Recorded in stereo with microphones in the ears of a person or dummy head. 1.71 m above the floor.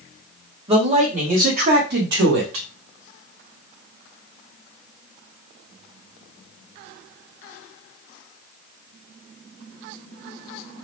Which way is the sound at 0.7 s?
35° right (ahead or behind).